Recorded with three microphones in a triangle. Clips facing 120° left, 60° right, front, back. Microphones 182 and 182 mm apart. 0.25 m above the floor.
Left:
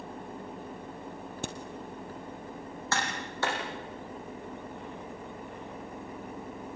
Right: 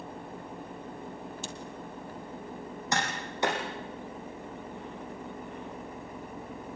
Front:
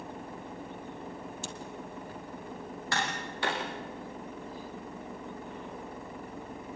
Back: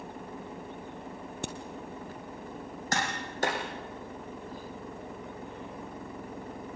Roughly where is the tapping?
Behind right.